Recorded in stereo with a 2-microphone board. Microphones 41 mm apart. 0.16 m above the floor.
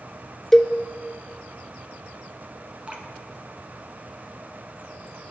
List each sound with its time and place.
0.5 s a cowbell: 5° left (ahead or behind), 0.6 m
2.9 s dripping: 30° right (ahead or behind), 1.9 m